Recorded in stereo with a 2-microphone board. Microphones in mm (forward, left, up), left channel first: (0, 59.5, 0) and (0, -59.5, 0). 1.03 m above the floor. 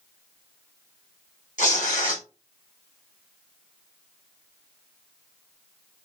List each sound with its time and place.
1.6 s tearing paper: 85° left, 2 m